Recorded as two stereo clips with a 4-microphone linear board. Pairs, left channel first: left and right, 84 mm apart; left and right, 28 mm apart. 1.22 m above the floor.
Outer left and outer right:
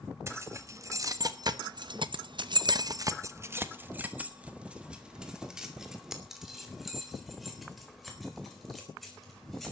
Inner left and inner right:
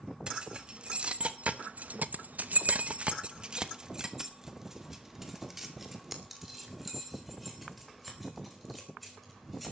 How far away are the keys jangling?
About 1.6 m.